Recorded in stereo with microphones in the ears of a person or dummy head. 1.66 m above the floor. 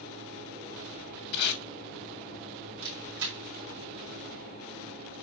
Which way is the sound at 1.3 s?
70° left (ahead or behind).